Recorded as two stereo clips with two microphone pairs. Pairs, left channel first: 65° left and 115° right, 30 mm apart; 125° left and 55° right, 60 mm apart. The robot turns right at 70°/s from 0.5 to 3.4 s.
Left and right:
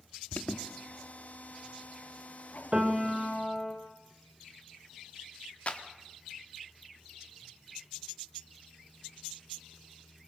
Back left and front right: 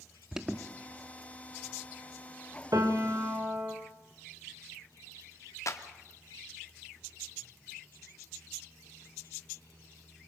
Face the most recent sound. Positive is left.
turn(degrees=105)